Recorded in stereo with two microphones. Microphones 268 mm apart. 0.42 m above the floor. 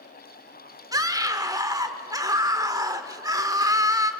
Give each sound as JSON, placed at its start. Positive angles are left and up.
{"t": 0.9, "sound": "a scream", "side_deg": -15, "distance_m": 1.4}